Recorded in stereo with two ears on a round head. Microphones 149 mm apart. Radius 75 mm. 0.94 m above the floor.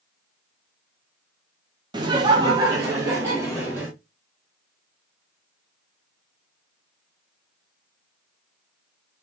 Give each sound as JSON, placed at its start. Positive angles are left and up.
{"t": 1.9, "sound": "laughter", "side_deg": -25, "distance_m": 0.5}